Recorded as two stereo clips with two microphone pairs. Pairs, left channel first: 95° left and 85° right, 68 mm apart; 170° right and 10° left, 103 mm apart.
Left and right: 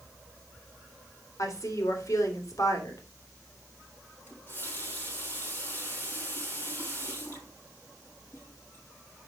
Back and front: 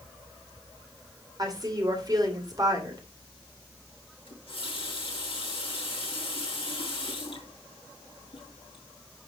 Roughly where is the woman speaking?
Ahead left.